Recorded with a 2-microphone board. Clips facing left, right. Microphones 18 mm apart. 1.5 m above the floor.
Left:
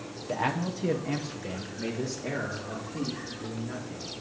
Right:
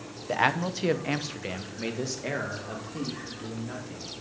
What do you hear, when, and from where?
0.3 s a man speaking: 60° right (ahead or behind), 0.8 m; by 4.1 s 30° right (ahead or behind), 3 m